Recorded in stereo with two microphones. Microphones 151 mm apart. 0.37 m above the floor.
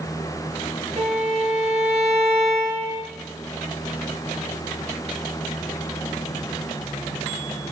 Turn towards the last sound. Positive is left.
turn(degrees=-45)  # may be behind; listen again after turning